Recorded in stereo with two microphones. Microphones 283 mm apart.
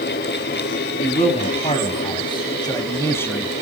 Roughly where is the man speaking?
Left.